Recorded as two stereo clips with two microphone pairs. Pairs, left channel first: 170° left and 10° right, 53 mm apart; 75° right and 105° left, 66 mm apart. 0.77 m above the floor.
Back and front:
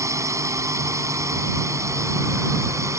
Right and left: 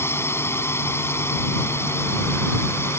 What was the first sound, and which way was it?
A drone, 25° right.